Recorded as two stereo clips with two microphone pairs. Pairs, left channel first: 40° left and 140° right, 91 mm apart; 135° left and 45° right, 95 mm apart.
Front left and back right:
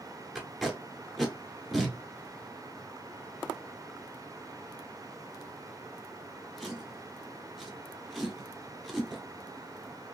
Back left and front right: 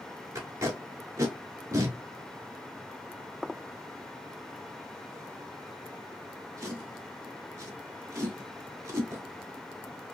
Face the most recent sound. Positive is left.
turn(degrees=-55)